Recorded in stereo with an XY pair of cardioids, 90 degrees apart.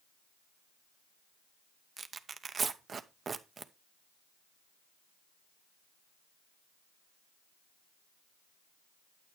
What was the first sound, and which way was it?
Tearing paper, 50° right.